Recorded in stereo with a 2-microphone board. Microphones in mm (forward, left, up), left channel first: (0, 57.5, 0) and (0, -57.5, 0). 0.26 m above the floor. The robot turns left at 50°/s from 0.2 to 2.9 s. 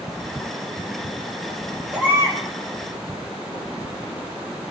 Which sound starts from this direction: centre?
A baby crying, at 1.9 s.